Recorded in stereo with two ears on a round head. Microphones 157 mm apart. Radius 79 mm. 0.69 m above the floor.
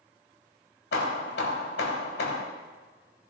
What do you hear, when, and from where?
0.9 s hammering: 65° left (ahead or behind), 1.3 m